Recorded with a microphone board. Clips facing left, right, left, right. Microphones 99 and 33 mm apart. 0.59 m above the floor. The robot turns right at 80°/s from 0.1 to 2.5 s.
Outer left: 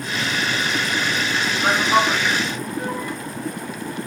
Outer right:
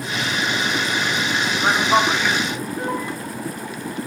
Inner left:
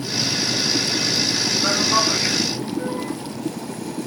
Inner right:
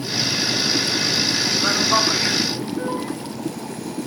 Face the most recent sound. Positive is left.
turn(degrees=-25)  # may be behind; listen again after turning